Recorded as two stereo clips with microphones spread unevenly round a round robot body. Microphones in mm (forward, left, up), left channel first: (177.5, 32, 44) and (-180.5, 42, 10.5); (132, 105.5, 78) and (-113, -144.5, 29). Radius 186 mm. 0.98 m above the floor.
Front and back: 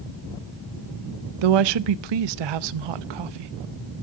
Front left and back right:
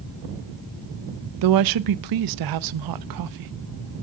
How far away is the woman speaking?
About 0.7 m.